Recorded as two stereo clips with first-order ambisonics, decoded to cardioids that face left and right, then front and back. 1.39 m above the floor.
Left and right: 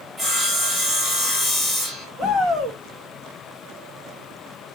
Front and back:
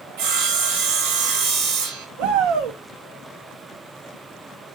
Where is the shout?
160° right, 1.9 m.